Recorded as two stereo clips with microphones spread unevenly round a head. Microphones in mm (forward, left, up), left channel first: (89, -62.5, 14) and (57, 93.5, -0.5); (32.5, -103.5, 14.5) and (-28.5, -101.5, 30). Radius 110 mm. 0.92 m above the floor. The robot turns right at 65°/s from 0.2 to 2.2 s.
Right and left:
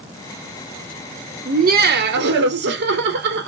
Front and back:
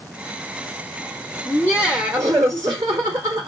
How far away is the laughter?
About 1.0 m.